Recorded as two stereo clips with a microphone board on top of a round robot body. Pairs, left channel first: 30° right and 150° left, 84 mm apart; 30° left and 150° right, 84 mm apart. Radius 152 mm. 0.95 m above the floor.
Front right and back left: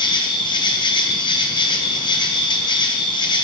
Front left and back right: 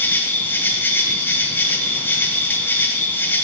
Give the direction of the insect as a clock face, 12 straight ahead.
1 o'clock.